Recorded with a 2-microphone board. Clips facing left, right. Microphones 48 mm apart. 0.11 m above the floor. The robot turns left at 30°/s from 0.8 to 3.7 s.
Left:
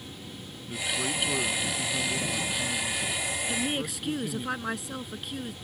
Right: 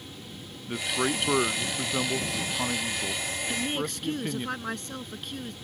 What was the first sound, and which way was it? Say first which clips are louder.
A man speaking: right 3 dB; 50° right.